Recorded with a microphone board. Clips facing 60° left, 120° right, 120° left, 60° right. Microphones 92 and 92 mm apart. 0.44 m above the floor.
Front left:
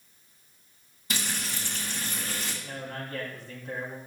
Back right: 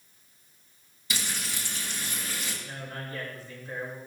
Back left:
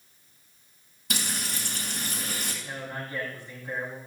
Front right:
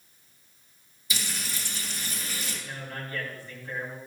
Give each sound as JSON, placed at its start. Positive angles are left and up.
{"t": 1.1, "sound": "frying", "azimuth_deg": 100, "distance_m": 4.0}
{"t": 2.6, "sound": "a man speaking", "azimuth_deg": 50, "distance_m": 3.5}